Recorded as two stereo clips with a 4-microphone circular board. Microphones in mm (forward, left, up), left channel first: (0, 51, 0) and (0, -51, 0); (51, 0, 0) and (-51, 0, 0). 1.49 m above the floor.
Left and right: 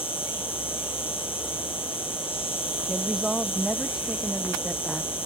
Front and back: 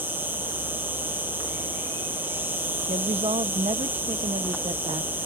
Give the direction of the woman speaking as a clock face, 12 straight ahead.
6 o'clock.